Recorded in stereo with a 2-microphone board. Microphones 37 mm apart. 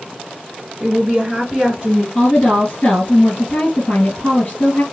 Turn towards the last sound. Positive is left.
turn(degrees=55)  # may be behind; listen again after turning